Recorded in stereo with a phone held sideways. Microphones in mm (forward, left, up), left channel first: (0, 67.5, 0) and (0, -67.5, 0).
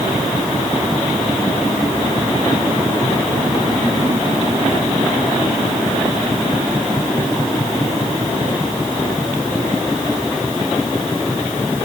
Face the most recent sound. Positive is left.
No sound to turn to.